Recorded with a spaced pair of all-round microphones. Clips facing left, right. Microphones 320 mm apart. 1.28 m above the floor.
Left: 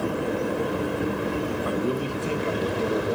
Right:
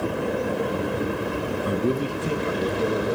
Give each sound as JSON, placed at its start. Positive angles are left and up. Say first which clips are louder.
{"t": 1.6, "sound": "a man speaking", "louder": "right 2 dB", "side_deg": -35, "distance_m": 0.8}